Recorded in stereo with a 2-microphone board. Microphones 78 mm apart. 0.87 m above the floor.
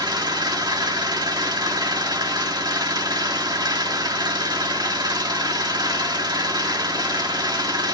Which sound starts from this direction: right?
An engine running, at 0.0 s.